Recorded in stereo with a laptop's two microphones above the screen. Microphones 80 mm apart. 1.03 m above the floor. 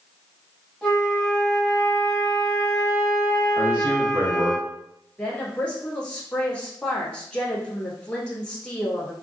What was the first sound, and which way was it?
A flute, 5° right (ahead or behind).